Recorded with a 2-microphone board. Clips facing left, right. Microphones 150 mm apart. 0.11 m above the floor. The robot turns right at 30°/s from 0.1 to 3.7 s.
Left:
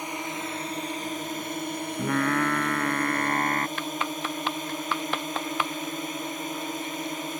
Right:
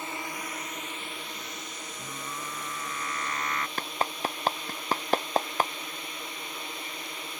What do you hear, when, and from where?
0.0 s a drone: 20° left; by 7.4 s 125° left
2.0 s singing: 85° left; by 3.7 s 135° left
3.8 s a clap: 40° right (ahead or behind)